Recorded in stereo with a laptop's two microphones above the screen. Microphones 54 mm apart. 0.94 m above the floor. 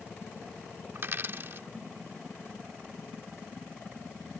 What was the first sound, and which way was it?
A dropped coin, 45° right (ahead or behind).